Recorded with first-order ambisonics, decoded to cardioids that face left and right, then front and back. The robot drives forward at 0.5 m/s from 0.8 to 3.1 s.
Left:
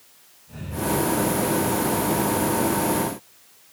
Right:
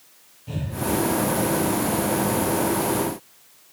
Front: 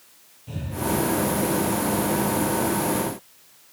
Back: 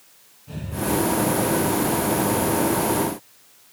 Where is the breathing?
70° right, 7.5 m.